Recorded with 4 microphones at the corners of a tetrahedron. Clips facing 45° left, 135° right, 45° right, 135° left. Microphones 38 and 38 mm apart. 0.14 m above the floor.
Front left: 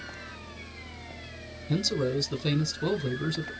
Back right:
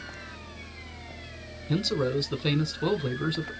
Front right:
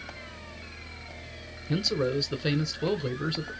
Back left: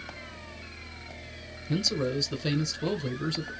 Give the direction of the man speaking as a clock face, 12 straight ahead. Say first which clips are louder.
Back right 1 dB, front right 2 dB; 3 o'clock.